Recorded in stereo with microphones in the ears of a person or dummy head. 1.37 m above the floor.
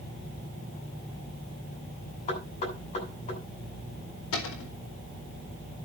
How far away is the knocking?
About 8 m.